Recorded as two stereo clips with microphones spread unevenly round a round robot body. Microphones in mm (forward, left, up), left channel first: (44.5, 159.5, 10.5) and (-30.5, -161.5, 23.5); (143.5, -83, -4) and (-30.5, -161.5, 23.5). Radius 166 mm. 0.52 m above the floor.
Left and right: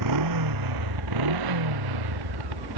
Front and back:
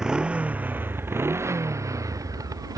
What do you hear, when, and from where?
0.0 s a motorcycle: 70° right; by 2.8 s 85° right